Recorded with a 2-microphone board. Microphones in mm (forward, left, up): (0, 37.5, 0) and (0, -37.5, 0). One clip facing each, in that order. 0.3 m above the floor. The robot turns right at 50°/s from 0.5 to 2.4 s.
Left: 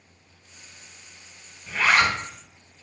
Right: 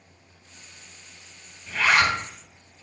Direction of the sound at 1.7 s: 10° left (ahead or behind).